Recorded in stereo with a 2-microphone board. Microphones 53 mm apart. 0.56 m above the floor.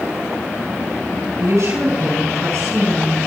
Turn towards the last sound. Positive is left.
turn(degrees=-70)  # may be behind; listen again after turning